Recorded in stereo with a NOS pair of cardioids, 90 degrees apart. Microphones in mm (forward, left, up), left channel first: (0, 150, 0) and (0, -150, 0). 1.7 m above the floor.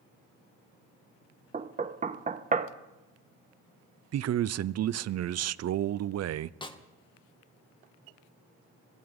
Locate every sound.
1.5 s knocking: 25° right, 1.4 m
4.1 s a man speaking: 55° right, 0.8 m
6.6 s a snare drum: 15° left, 2 m